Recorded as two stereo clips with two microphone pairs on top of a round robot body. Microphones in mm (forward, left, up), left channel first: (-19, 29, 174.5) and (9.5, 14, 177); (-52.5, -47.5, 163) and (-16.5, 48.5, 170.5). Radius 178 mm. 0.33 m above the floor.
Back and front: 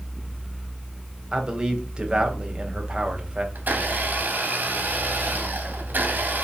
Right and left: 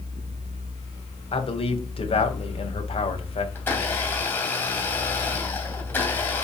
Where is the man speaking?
95° right, 2.5 m.